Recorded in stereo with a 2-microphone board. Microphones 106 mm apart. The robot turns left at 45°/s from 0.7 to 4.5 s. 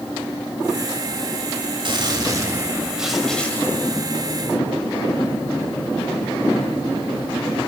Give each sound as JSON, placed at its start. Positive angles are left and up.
{"t": 1.9, "sound": "a gunshot", "azimuth_deg": -120, "distance_m": 2.0}